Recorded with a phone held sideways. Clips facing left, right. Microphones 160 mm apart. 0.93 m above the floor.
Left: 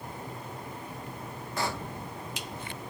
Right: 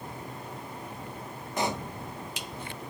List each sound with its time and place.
1.6 s a pop: 20° right (ahead or behind)